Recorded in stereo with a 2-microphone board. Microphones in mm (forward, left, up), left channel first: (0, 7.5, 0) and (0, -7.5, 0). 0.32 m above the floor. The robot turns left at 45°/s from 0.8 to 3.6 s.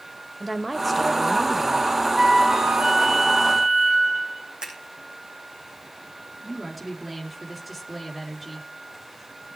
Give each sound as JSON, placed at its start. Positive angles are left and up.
{"t": 0.4, "sound": "a woman speaking", "side_deg": 10, "distance_m": 0.9}
{"t": 2.1, "sound": "a flute", "azimuth_deg": -45, "distance_m": 5.0}
{"t": 4.6, "sound": "scissors", "side_deg": -85, "distance_m": 9.0}
{"t": 6.4, "sound": "a woman speaking", "side_deg": -15, "distance_m": 4.0}